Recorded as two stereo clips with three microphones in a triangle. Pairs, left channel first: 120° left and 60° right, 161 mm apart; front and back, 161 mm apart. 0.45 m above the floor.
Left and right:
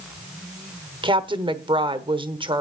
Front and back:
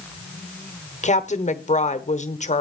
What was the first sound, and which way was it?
A woman speaking, 15° right.